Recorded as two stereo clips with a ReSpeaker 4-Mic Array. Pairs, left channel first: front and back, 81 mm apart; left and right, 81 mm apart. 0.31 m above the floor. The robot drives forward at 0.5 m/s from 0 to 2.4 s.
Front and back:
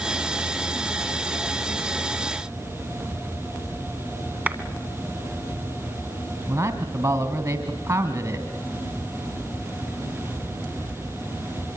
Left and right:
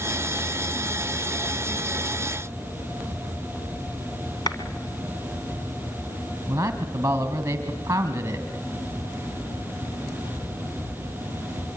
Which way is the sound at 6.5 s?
145° right.